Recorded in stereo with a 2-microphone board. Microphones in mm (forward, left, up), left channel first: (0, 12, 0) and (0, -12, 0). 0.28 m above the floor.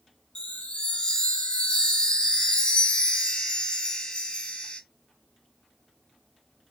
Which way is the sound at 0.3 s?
40° left (ahead or behind).